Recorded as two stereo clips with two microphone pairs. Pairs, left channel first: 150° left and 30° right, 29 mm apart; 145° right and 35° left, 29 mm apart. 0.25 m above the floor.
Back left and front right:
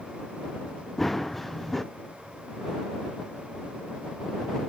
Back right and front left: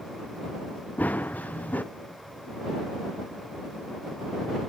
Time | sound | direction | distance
1.0 | running footsteps | 125° right | ?